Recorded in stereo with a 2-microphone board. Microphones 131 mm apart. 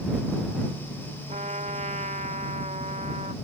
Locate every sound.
1.3 s a trumpet: 75° right (ahead or behind)